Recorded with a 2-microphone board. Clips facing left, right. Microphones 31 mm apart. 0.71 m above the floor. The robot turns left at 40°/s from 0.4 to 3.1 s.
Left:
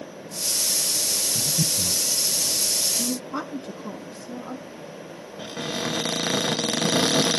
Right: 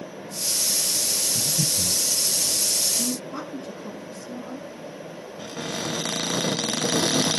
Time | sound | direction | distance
1.4 | breathing | 20° left (ahead or behind) | 2.0 m
3.0 | a woman speaking | 30° left (ahead or behind) | 1.2 m
5.4 | a cupboard door | 25° left (ahead or behind) | 0.5 m